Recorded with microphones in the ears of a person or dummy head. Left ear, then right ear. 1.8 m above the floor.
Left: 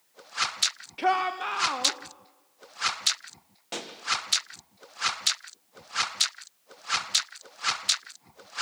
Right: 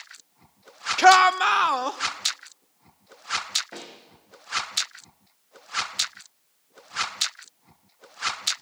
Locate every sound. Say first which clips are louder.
1.0 s a shout: right 11 dB; 60° right (ahead or behind), 0.6 m; by 2.0 s 45° right (ahead or behind), 1.1 m
3.7 s a pop: left 4 dB; 80° left, 2 m